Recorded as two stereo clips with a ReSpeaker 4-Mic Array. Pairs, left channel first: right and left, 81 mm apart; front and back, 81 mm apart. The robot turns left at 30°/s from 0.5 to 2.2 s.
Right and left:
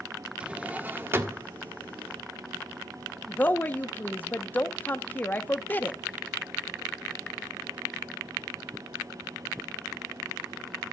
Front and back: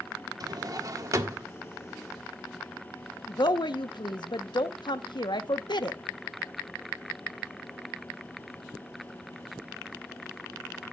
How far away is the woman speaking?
About 1.0 m.